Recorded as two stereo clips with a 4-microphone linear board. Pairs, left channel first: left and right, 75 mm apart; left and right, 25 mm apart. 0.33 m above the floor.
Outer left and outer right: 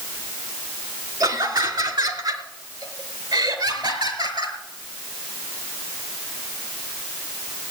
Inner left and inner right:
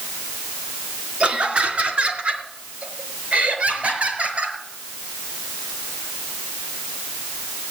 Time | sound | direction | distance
1.2 | laughter | 65° right (ahead or behind) | 3.5 m